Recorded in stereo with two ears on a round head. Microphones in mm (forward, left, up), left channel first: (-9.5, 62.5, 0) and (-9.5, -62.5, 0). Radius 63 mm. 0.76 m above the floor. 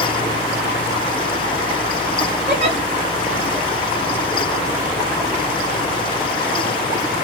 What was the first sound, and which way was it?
A giggle, 60° right (ahead or behind).